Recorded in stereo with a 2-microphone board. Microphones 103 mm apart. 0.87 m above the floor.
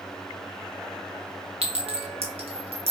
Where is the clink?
75° right (ahead or behind), 1.0 m.